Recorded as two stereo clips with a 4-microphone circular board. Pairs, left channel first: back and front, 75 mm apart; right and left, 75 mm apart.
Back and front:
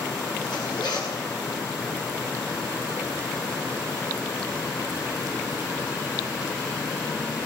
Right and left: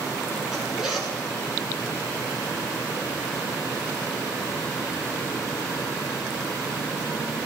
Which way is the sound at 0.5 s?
175° left.